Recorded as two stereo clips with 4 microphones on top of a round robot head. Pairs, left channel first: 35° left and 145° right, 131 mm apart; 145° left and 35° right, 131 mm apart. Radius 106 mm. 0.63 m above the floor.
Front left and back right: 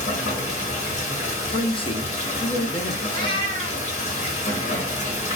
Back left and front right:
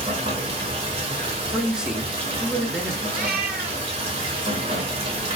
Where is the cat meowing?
20° right, 0.7 m.